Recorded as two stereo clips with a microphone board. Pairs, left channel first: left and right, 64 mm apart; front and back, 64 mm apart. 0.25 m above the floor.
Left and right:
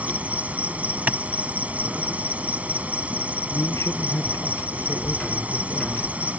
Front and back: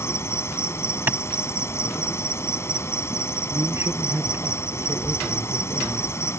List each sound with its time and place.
0.0 s an insect: 30° right
1.1 s a clap: 145° right
3.5 s a man speaking: 135° left